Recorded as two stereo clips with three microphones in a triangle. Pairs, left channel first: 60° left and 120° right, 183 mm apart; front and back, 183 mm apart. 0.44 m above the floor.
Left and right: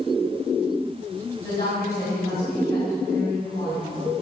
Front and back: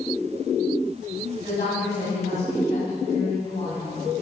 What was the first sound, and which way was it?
A woman speaking, 40° left.